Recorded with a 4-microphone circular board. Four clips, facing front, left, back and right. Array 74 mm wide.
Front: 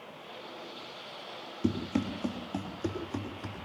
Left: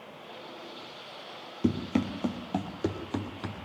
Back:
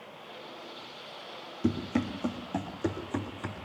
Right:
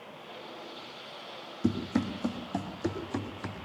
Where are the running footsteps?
85° left, 2.5 m; by 3.6 s 110° left, 3 m.